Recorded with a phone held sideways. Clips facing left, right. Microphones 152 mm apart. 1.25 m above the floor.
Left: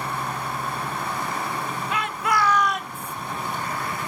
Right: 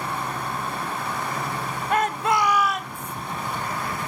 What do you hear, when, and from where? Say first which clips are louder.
1.9 s a shout: right 4 dB; 50° right (ahead or behind), 0.8 m; by 3.1 s 15° left (ahead or behind), 1.3 m